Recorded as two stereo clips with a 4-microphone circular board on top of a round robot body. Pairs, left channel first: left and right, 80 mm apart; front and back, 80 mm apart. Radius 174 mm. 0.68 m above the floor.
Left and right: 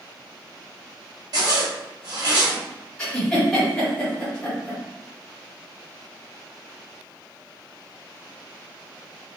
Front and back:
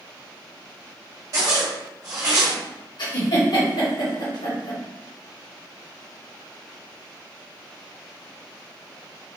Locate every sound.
1.3 s a zipper: 130° right, 0.9 m
3.0 s a giggle: 15° left, 1.7 m